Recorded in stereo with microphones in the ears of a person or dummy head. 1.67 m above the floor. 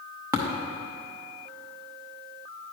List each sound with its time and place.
0.3 s tapping: 15° right (ahead or behind), 0.8 m